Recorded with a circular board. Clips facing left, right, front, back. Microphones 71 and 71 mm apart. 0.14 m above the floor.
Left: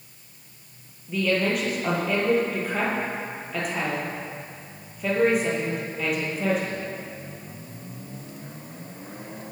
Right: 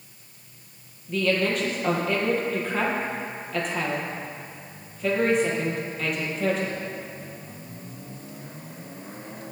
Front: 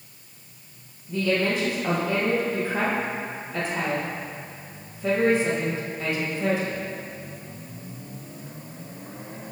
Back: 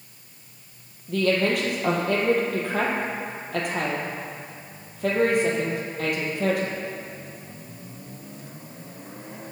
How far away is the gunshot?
I don't hear a gunshot.